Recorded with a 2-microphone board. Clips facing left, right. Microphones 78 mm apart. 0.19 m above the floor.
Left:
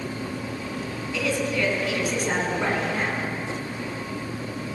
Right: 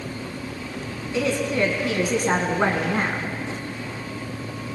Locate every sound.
1.1 s a woman speaking: 30° right (ahead or behind), 1.9 m; by 3.3 s 50° right (ahead or behind), 1.9 m